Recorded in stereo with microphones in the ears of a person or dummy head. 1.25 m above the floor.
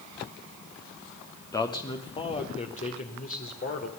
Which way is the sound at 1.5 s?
15° left (ahead or behind).